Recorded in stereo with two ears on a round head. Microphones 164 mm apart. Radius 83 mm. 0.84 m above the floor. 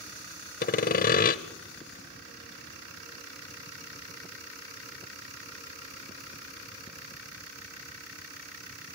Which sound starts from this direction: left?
Sawing, at 0.6 s.